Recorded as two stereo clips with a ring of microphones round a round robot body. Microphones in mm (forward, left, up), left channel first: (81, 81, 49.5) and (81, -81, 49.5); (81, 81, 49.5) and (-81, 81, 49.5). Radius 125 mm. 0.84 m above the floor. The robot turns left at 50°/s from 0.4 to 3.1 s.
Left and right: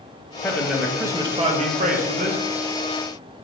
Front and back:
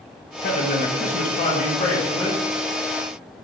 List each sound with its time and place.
0.4 s a man speaking: 15° left, 0.6 m; by 2.4 s 85° right, 0.6 m